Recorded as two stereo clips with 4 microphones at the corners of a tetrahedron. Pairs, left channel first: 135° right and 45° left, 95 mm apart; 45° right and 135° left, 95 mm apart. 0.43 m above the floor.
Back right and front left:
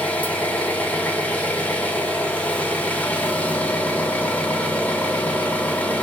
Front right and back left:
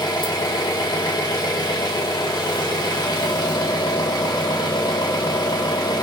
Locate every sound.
0.0 s an engine running: 65° right, 0.8 m